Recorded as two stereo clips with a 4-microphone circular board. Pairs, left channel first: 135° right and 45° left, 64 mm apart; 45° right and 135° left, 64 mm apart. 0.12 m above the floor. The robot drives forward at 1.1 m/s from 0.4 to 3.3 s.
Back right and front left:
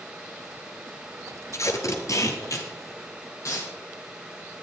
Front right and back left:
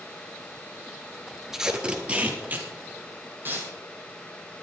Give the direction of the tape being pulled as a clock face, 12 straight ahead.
5 o'clock.